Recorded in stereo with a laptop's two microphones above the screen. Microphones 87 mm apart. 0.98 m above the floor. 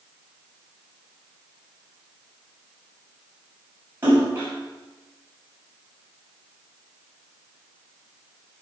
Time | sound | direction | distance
4.0 | a splash | 25° right (ahead or behind) | 6.5 m